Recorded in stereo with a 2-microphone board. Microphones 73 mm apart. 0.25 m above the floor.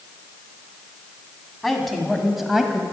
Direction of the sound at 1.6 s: Centre (ahead or behind).